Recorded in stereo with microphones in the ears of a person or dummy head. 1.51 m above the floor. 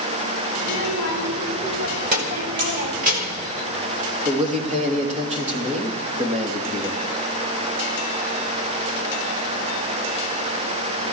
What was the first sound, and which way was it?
A child speaking, 50° right (ahead or behind).